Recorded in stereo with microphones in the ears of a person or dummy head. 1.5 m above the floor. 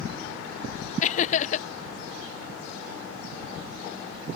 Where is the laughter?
50° left (ahead or behind).